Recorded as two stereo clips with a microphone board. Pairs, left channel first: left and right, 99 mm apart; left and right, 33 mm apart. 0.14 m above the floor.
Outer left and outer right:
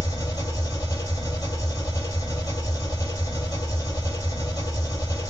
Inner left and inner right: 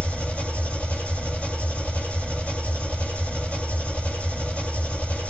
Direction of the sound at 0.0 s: 40° left (ahead or behind).